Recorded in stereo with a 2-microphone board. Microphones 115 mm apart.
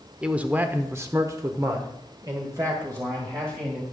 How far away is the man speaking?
About 0.8 m.